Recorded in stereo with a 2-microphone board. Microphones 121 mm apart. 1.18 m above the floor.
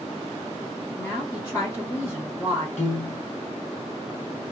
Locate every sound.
1.0 s a woman speaking: 25° left (ahead or behind), 1.4 m
2.8 s a piano: 75° left (ahead or behind), 1.1 m